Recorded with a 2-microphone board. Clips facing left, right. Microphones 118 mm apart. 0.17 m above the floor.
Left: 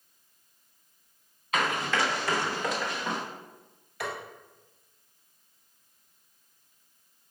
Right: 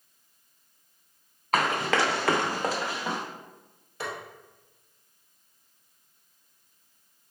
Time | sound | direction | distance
1.5 | running footsteps | 55° right (ahead or behind) | 0.9 m
4.0 | tapping | 30° right (ahead or behind) | 1.6 m